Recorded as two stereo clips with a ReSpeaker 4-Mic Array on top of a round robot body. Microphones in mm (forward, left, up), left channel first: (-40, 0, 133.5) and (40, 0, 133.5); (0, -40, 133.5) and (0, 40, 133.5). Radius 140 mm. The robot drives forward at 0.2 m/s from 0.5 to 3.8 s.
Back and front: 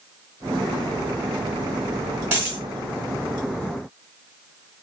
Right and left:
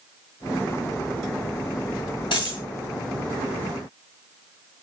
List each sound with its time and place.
2.3 s a dropped coin: 70° right, 1.3 m; by 2.6 s 75° right, 1.3 m